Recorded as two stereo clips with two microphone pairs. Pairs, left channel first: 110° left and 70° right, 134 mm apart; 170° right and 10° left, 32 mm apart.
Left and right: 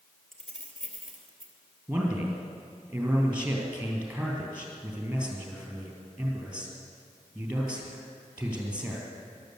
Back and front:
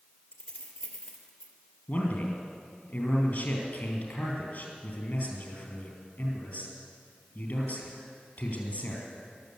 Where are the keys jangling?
160° right, 2.5 m.